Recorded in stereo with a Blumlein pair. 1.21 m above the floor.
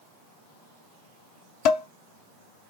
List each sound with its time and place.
1.6 s dishes clattering: 45° left, 0.7 m